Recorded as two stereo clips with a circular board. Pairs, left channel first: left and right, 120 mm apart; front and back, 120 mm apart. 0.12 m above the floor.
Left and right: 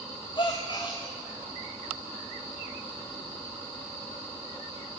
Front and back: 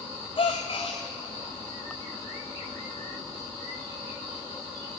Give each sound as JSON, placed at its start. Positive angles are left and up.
{"t": 0.4, "sound": "a gasp", "azimuth_deg": 45, "distance_m": 1.9}